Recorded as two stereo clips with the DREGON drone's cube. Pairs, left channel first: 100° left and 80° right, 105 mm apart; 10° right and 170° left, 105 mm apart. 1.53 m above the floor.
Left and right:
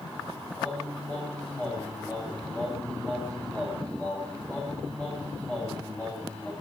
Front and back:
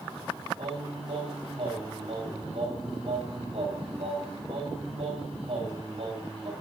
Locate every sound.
0.6 s singing: straight behind, 8.5 m